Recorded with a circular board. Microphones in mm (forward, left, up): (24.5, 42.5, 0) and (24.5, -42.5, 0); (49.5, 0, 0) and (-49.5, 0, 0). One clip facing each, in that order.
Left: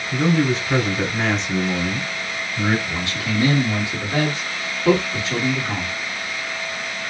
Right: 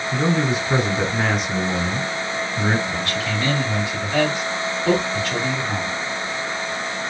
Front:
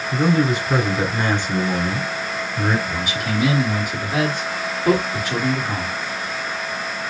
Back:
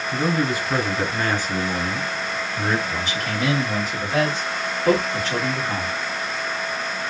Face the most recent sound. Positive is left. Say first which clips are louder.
# right 1 dB, front 2 dB
turn(degrees=65)